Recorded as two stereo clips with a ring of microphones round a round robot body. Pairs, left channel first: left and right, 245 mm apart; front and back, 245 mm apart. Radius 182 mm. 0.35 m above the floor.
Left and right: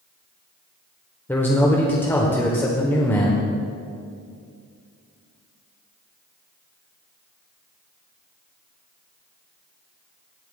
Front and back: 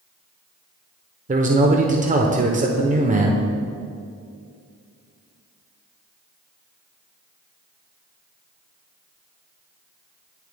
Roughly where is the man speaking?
Behind.